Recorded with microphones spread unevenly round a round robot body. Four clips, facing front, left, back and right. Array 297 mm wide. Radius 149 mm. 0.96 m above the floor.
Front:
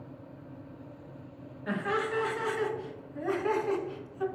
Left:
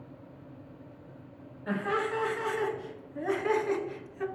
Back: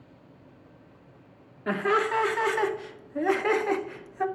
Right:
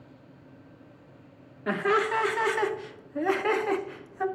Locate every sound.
1.7 s laughter: 125° right, 2 m; by 4.3 s 160° right, 1.0 m